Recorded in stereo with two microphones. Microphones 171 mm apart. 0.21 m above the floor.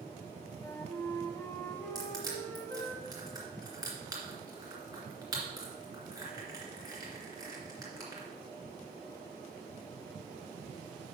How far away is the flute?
About 1.0 m.